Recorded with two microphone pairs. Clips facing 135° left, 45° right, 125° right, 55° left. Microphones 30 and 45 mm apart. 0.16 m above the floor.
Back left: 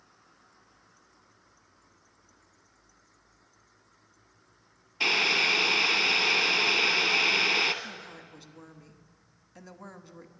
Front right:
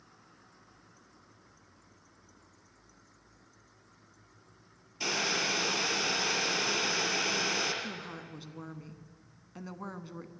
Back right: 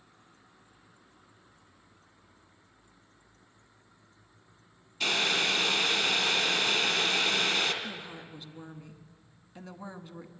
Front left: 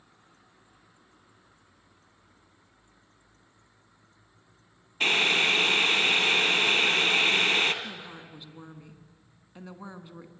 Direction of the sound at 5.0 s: 100° left.